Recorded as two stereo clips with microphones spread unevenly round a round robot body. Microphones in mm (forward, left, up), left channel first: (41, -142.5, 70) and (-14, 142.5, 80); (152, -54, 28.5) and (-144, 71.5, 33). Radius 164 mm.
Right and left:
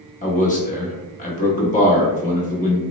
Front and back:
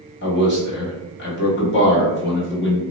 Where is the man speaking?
40° right, 0.9 m.